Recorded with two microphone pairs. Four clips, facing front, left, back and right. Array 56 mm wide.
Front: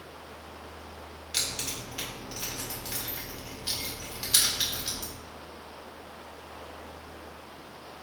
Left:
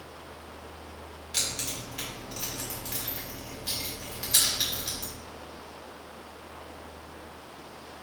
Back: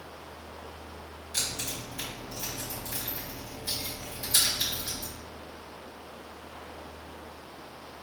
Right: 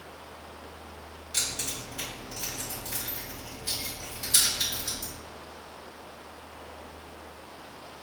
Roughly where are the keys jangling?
Ahead.